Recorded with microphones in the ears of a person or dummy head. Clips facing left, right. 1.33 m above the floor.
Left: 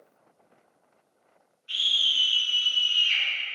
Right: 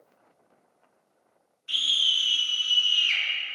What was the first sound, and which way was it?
A scream, 60° right (ahead or behind).